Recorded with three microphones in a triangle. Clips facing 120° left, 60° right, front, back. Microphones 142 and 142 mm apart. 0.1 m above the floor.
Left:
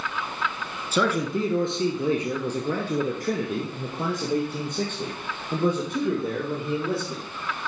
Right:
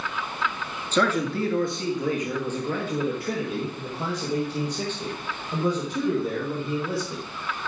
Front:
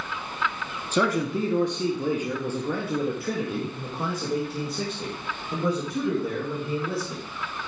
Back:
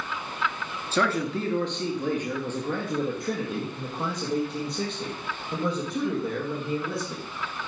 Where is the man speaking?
50° left, 1.2 m; by 7.2 s 90° left, 4 m.